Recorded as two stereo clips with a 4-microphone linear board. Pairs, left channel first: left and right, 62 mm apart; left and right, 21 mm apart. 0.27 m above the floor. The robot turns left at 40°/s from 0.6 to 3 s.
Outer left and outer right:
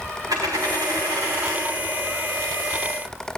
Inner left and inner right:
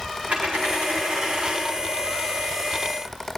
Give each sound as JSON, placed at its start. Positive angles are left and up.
{"t": 0.3, "sound": "a dropped coin", "azimuth_deg": -85, "distance_m": 5.5}